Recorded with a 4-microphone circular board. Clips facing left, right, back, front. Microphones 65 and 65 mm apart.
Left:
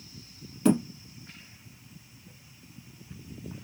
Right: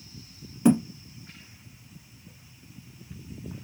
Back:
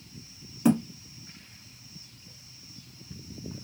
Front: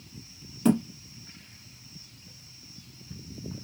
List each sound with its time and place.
0.7 s a thud: 130° right, 1.2 m